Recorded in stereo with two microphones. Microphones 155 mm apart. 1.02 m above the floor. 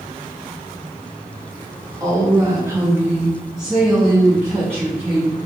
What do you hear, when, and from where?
2.0 s a woman speaking: 20° right (ahead or behind), 0.9 m; by 5.3 s 10° left (ahead or behind), 1.2 m